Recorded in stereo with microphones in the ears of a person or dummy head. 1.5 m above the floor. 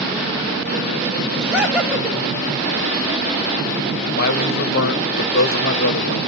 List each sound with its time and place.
1.4 s laughter: 5° right (ahead or behind), 8 m
4.1 s a man speaking: 55° left (ahead or behind), 1.6 m